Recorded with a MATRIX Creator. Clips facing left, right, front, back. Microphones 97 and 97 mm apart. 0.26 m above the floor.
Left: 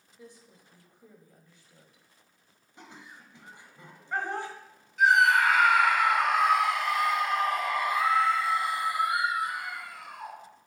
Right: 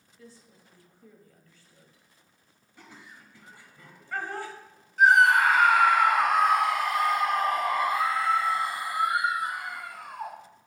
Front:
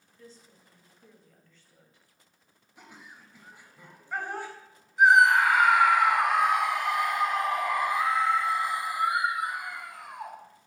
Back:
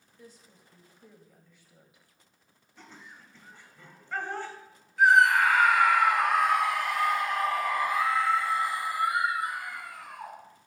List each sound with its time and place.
0.2 s a woman speaking: 125° left, 1.2 m
2.8 s laughter: 60° left, 1.0 m
5.0 s a scream: 65° right, 1.4 m